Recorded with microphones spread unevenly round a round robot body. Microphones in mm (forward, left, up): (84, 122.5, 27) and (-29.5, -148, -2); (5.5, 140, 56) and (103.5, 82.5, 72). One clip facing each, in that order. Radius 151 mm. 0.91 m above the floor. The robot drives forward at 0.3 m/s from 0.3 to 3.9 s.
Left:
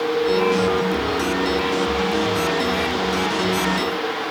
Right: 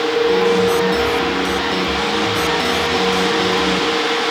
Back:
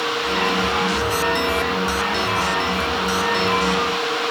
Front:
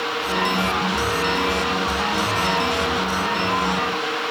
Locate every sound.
Only background noise.